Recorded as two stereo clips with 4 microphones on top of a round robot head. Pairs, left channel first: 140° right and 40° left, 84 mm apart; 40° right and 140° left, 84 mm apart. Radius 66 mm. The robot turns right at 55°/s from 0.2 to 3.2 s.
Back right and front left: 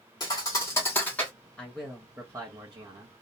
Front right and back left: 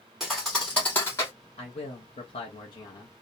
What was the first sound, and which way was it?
A thud, 135° right.